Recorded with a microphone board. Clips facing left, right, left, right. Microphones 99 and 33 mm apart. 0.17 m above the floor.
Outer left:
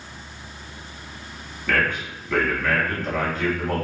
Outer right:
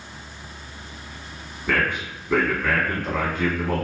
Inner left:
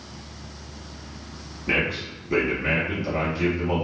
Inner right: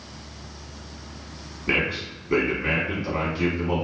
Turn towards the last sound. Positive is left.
turn(degrees=-20)  # may be behind; listen again after turning